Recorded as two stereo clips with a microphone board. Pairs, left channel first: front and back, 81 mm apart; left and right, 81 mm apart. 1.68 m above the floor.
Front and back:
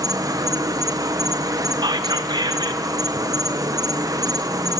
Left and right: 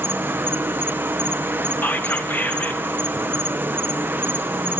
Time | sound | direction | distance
0.0 | an insect | 150° right | 0.9 m
1.8 | whispering | 155° left | 1.1 m